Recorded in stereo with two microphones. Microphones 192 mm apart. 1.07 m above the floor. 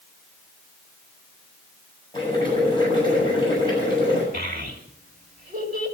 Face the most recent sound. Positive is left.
turn(degrees=-50)  # may be behind; listen again after turning